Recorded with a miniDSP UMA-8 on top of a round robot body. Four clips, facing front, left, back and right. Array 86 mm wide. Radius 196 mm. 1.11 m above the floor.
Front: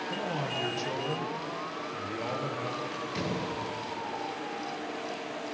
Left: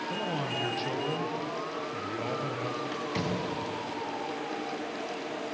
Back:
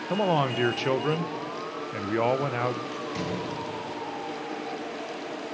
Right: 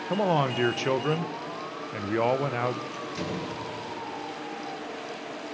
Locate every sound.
0.1 s a man speaking: 135° right, 1.4 m
2.9 s a door slam: 95° left, 7.5 m